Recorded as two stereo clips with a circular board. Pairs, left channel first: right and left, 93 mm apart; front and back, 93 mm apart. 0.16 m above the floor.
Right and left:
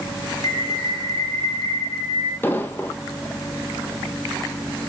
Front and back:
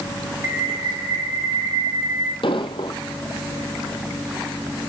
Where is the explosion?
25° right, 1.1 m.